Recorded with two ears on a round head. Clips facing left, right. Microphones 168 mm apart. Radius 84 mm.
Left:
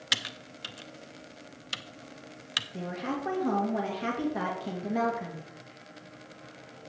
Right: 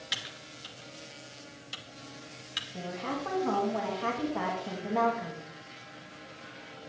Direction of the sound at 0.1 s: 65° left (ahead or behind).